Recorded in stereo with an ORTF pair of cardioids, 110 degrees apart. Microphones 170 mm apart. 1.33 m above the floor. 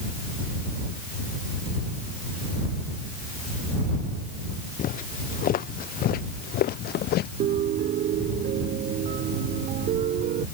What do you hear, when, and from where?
4.8 s footsteps: 55° left; by 7.3 s 70° left
7.4 s a piano: 60° right